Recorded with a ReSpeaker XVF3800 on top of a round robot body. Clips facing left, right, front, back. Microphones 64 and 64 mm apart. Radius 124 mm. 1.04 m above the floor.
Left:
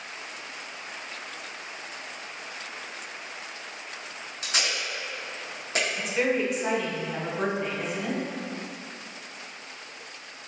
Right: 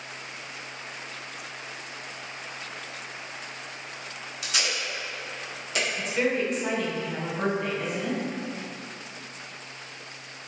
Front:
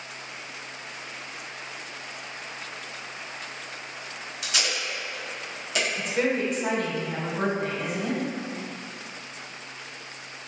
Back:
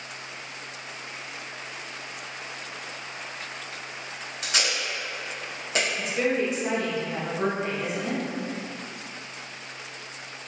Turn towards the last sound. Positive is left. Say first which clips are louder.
# even, front 1 dB
turn(degrees=10)